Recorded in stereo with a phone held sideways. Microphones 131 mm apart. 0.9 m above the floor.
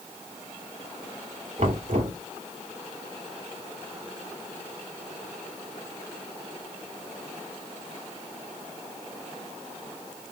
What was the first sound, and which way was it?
Knocking, 65° right (ahead or behind).